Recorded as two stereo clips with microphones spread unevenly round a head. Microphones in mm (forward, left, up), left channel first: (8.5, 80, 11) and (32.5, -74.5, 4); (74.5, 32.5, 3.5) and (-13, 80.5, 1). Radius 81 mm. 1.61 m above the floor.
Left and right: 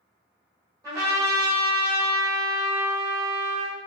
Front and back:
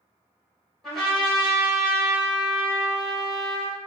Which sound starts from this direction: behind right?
A trumpet, at 0.8 s.